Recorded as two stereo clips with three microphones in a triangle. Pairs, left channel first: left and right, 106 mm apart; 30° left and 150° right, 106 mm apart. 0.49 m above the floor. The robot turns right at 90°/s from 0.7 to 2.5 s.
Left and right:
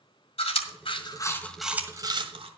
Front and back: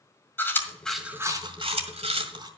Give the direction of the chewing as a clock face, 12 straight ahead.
9 o'clock.